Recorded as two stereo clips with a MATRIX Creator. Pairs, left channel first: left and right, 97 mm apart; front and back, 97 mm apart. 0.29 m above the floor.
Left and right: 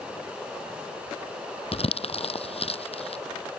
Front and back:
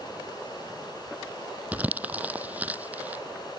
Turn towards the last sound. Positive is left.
turn(degrees=105)